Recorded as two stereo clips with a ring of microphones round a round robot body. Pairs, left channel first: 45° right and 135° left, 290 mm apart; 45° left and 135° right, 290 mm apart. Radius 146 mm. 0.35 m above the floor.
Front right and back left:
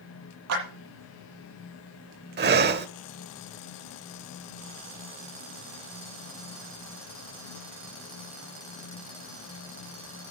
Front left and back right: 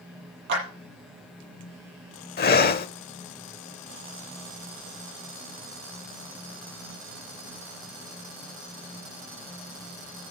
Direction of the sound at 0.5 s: 175° left.